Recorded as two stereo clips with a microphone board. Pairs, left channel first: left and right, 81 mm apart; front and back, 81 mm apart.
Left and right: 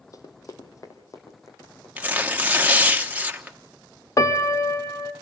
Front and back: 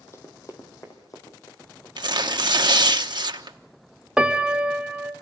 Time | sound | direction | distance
0.1 | running footsteps | 55° left | 2 m
2.0 | tearing paper | 160° right | 1.1 m
4.2 | a piano | 105° left | 1.0 m